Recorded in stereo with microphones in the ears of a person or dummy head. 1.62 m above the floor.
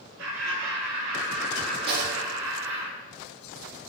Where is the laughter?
85° right, 5 m; by 2.9 s 80° right, 6.5 m.